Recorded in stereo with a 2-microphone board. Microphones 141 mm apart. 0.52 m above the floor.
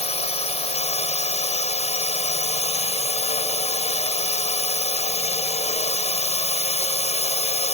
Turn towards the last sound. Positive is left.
turn(degrees=50)  # may be behind; listen again after turning